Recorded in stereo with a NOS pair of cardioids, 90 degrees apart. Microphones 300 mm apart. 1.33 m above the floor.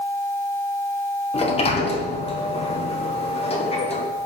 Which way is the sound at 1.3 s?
20° left.